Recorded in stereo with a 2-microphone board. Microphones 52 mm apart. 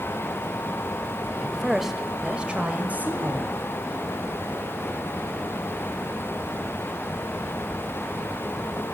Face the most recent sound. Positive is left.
turn(degrees=-45)  # may be behind; listen again after turning